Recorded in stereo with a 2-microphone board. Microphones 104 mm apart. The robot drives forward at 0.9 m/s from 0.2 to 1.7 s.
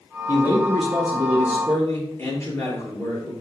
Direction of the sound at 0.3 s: 35° left (ahead or behind).